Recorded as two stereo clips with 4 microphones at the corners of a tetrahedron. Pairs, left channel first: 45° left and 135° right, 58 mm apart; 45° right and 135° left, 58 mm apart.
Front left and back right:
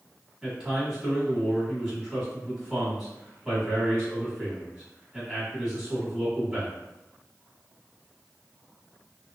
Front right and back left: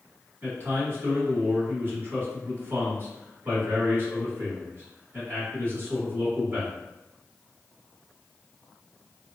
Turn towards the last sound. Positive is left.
turn(degrees=145)